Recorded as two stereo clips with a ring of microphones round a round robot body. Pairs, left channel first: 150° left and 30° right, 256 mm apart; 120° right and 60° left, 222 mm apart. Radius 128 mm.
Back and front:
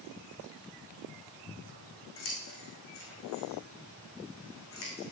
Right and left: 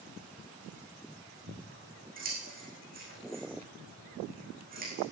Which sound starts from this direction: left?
Scissors, at 1.5 s.